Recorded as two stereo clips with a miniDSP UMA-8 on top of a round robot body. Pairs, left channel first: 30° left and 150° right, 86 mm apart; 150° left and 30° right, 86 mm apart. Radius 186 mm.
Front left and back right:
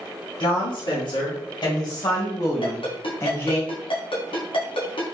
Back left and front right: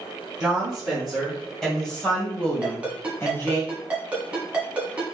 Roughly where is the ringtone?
Ahead left.